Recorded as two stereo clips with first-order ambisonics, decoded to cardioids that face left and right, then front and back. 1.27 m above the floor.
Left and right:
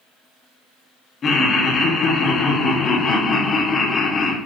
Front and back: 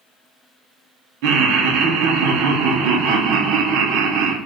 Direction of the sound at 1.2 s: 155° left.